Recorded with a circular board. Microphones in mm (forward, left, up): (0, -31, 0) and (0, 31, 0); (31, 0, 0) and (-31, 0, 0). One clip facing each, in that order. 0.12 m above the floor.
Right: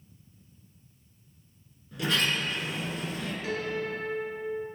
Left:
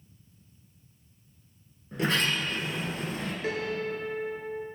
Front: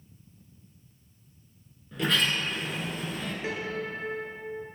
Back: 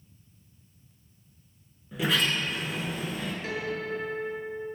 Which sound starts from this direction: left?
A sliding door, at 1.9 s.